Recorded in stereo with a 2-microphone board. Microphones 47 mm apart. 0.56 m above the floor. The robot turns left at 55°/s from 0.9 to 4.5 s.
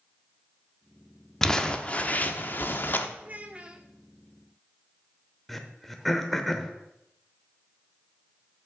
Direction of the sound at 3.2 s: 125° right.